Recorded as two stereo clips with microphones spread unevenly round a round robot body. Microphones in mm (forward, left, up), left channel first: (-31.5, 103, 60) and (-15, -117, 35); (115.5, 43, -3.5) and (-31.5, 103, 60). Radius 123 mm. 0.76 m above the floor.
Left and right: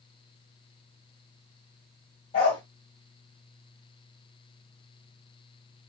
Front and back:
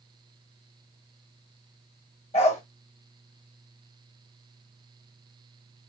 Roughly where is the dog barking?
Ahead left.